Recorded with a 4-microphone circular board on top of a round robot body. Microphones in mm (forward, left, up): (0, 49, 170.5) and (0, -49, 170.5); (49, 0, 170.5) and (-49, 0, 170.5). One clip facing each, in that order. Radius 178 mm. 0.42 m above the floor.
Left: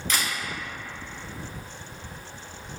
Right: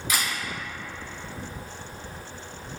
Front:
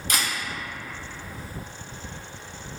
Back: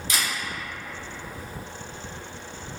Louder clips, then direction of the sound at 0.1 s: Even, front 1 dB; 10° right.